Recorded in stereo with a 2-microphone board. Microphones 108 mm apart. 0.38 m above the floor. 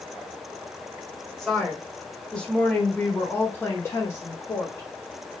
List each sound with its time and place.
1.4 s a woman speaking: 5° left (ahead or behind), 1.9 m; by 5.3 s 20° left (ahead or behind), 1.8 m